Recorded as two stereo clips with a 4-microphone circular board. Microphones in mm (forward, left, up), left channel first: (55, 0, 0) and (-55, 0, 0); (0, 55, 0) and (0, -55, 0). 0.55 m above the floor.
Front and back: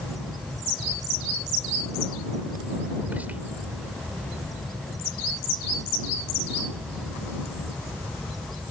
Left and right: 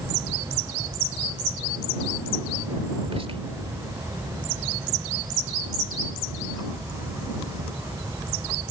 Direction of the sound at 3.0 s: 105° right.